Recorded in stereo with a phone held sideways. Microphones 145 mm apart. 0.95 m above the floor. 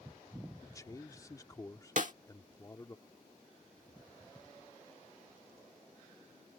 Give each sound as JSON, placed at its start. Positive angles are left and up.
{"t": 0.6, "sound": "a man speaking", "side_deg": 25}
{"t": 2.0, "sound": "a snare drum", "side_deg": -60}